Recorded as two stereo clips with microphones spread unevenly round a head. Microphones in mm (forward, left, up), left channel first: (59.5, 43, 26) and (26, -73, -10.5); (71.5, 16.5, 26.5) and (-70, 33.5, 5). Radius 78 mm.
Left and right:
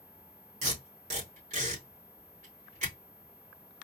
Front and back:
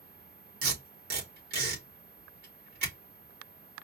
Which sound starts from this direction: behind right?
Tape being pulled, at 0.6 s.